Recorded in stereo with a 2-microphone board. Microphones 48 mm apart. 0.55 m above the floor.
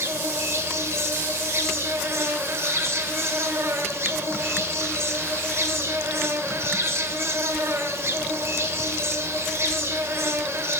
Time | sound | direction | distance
0.0 | an insect | 65° right (ahead or behind) | 1.0 m